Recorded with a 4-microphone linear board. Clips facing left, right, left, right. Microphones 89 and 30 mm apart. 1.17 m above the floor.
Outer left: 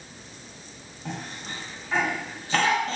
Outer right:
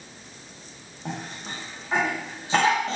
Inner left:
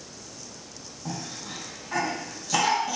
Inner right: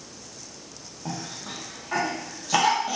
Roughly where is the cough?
Centre.